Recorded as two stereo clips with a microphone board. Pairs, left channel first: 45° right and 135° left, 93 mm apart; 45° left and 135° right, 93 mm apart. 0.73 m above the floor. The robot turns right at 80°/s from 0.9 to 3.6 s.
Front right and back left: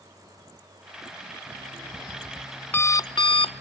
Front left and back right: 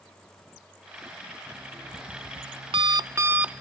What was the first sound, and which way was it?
An alarm clock, 145° left.